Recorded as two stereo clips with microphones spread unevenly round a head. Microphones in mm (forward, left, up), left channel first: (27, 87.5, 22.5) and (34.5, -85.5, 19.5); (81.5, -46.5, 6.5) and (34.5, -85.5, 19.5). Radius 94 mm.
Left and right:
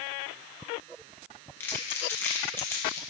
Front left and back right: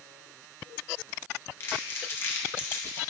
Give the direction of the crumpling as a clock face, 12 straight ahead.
11 o'clock.